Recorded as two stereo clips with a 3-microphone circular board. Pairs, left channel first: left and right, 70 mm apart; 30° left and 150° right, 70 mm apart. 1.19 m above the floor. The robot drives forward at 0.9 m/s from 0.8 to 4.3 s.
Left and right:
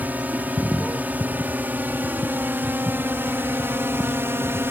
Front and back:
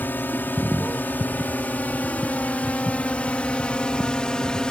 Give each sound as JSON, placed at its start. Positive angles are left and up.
{"t": 0.0, "sound": "a drone", "azimuth_deg": -30}